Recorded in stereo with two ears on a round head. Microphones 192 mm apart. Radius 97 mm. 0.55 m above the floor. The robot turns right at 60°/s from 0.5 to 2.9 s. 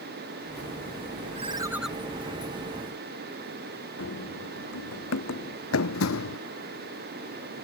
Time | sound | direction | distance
1.4 | a ringtone | 30° right | ?
4.0 | running footsteps | 70° left (ahead or behind) | ?